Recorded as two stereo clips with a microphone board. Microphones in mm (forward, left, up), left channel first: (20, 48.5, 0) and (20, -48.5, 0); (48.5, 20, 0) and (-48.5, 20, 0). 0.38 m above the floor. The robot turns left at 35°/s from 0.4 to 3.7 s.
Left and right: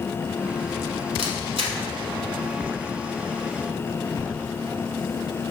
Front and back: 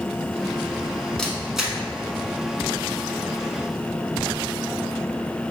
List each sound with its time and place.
1.2 s a camera shutter: 85° right, 0.9 m; by 1.8 s 105° right, 0.9 m